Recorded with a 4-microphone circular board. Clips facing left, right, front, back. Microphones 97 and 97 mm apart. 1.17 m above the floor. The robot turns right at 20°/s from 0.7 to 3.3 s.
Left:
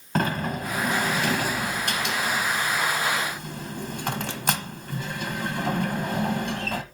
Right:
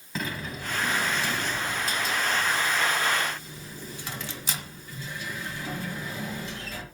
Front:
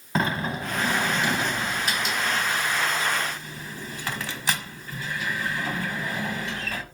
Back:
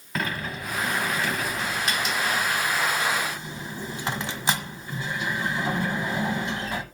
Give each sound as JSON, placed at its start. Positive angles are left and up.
{"t": 0.1, "sound": "a sliding door", "azimuth_deg": 65, "distance_m": 1.4}